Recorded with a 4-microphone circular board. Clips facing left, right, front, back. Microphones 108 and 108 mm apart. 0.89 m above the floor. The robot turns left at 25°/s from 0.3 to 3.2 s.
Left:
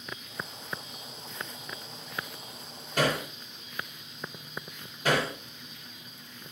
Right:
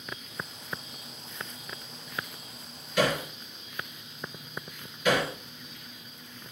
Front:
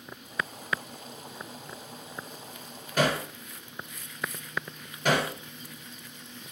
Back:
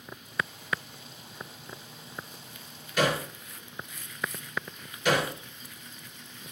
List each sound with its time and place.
3.0 s hammering: 45° left, 5 m; by 6.5 s 40° left, 5 m